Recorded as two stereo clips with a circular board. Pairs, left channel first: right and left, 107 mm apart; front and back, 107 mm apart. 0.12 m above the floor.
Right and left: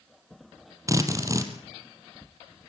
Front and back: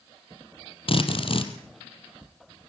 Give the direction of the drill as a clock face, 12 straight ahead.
11 o'clock.